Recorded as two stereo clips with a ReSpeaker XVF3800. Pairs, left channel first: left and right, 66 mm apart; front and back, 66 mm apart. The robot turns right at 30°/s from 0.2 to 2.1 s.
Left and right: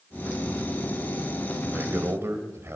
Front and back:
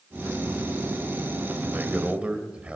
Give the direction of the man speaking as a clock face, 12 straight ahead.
4 o'clock.